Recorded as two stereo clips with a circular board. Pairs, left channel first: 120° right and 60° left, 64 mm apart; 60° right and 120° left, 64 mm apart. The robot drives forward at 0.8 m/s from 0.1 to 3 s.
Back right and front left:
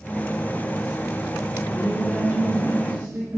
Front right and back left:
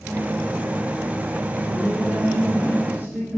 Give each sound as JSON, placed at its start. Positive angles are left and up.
{"t": 1.7, "sound": "a woman speaking", "azimuth_deg": 30, "distance_m": 2.5}